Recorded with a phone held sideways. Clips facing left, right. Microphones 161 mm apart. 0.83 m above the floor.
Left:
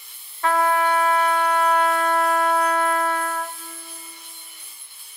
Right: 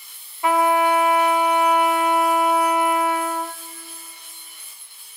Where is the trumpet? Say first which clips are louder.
Right 2 dB; 15° right (ahead or behind), 0.8 m.